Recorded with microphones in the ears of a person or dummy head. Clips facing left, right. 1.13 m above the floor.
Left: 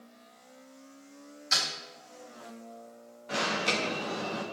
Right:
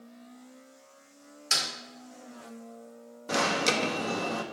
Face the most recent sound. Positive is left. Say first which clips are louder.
# right 4 dB
turn(degrees=-55)  # may be behind; listen again after turning